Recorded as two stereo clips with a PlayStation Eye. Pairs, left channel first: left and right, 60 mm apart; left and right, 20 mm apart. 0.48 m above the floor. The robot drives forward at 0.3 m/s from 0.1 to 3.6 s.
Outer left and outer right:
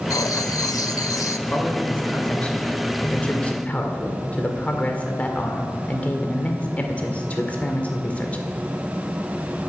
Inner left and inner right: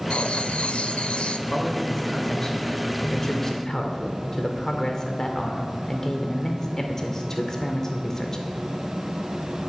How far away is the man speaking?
About 2 m.